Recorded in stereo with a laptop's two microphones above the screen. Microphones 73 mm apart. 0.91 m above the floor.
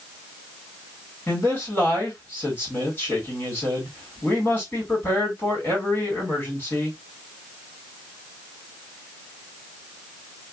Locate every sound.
1.3 s a man speaking: 30° left (ahead or behind), 2 m